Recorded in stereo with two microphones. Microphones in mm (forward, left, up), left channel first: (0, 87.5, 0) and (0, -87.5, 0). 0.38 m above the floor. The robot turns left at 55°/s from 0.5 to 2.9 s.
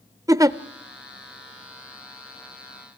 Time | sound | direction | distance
0.3 | a giggle | 20° right (ahead or behind) | 0.5 m